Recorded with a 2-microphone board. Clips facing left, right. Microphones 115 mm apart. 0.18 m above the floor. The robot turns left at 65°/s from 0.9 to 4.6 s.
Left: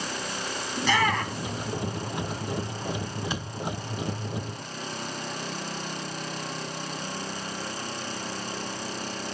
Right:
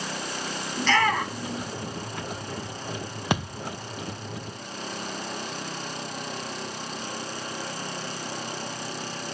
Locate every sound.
0.8 s a shout: 10° left (ahead or behind), 3 m; by 1.6 s 35° right (ahead or behind), 3 m
3.3 s a thud: 65° right (ahead or behind), 1.2 m; by 3.6 s 85° right, 1.2 m